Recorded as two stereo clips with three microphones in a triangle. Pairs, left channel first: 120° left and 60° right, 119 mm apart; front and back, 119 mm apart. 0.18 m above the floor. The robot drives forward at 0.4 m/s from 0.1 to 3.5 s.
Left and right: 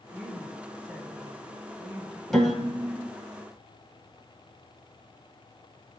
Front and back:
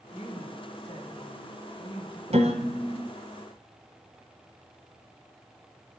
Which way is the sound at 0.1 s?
35° left.